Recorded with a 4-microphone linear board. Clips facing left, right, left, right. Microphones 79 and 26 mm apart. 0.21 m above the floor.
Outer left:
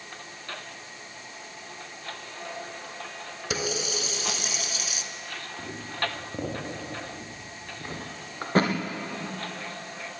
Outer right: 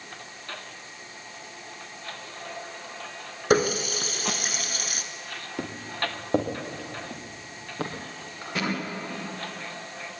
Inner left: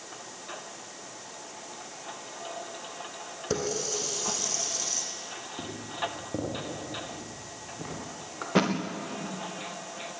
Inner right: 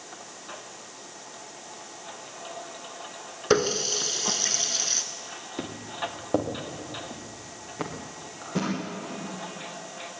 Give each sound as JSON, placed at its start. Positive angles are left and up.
{"t": 3.5, "sound": "a running tap", "side_deg": -50, "distance_m": 1.5}
{"t": 5.6, "sound": "footsteps", "side_deg": -80, "distance_m": 5.5}
{"t": 8.4, "sound": "a thud", "side_deg": 40, "distance_m": 4.0}